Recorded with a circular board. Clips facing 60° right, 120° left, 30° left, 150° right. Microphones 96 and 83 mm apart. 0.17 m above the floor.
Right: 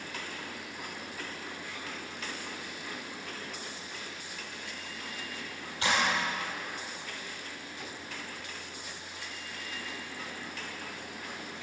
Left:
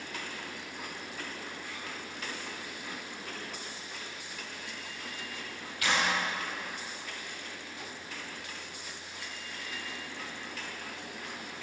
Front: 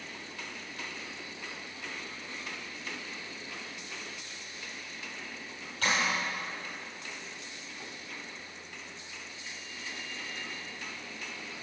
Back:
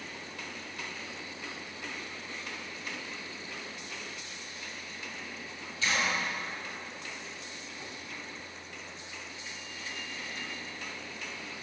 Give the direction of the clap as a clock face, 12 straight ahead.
12 o'clock.